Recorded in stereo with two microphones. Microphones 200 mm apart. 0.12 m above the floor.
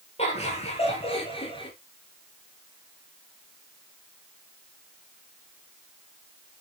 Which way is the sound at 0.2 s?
30° left (ahead or behind).